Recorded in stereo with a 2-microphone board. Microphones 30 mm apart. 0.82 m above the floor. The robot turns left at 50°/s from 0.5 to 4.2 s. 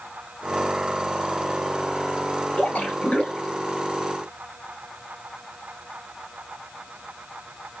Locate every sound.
2.6 s a splash: 70° left, 2 m; by 3.6 s 20° left, 2 m